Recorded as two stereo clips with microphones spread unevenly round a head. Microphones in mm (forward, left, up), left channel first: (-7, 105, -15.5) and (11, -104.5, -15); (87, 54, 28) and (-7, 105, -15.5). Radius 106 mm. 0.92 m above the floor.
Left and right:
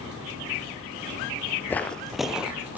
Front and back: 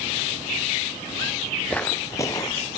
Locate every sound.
1.7 s footsteps: 20° left, 1.1 m; by 2.8 s 5° right, 2 m